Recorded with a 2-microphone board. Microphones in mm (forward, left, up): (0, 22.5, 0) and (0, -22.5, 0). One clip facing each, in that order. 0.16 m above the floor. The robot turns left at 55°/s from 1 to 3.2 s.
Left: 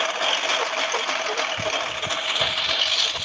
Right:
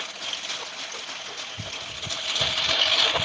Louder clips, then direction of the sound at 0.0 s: Left 11 dB; 60° left (ahead or behind).